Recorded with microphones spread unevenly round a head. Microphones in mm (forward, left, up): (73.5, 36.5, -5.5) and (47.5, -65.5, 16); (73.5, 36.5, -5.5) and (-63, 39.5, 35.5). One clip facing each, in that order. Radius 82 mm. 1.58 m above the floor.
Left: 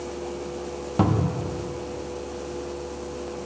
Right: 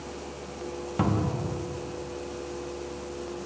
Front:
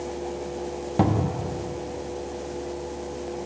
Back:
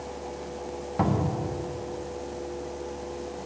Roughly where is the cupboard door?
Ahead left.